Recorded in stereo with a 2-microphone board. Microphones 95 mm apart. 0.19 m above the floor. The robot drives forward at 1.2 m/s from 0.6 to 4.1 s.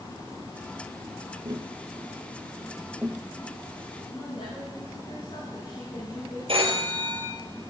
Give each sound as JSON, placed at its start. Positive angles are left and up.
{"t": 1.4, "sound": "tapping", "side_deg": -55, "distance_m": 0.8}
{"t": 4.1, "sound": "a woman speaking", "side_deg": 70, "distance_m": 9.5}
{"t": 6.5, "sound": "a phone ringing", "side_deg": -75, "distance_m": 3.0}